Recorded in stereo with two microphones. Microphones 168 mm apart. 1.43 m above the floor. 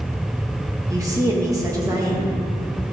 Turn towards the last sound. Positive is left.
turn(degrees=-20)  # may be behind; listen again after turning